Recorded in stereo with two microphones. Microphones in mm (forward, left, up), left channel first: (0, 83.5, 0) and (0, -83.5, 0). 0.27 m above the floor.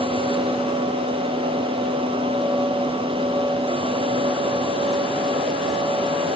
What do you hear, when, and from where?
Only background noise.